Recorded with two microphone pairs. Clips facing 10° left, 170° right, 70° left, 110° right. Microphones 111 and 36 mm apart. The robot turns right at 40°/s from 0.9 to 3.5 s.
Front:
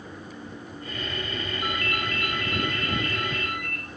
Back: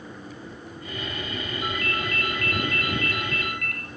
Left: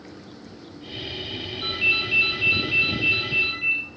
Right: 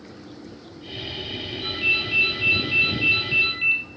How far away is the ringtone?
About 3.5 m.